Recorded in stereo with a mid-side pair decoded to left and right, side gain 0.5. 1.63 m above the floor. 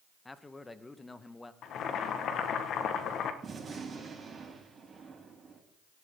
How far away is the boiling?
About 1.7 m.